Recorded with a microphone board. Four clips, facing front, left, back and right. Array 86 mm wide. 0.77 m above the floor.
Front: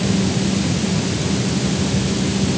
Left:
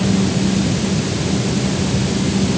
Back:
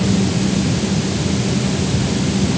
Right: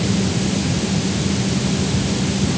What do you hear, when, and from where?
Only background noise.